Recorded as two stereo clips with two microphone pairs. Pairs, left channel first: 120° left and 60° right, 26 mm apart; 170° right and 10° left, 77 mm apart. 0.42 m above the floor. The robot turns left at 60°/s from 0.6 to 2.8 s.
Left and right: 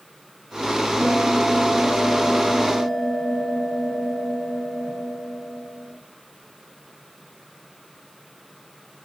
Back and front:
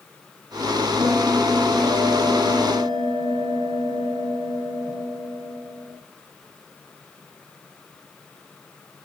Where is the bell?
60° right, 5.5 m; by 5.9 s 170° right, 5.5 m.